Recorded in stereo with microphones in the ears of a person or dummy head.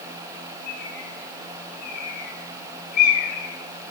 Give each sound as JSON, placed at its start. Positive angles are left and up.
{"t": 0.7, "sound": "a bird", "side_deg": 55, "distance_m": 5.0}